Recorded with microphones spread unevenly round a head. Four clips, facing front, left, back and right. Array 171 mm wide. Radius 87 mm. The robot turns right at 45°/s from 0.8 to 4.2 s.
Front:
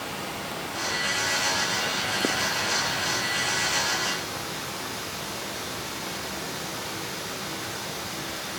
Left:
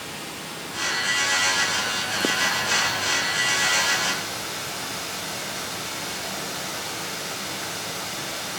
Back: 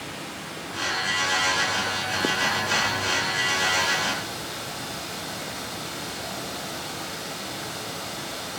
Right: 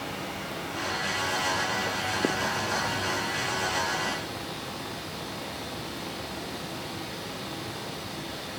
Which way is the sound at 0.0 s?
40° right.